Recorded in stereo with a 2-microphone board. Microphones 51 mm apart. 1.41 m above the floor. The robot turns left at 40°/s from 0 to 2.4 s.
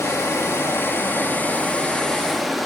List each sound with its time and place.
0.0 s running water: 95° left, 0.8 m; by 2.7 s straight ahead, 0.8 m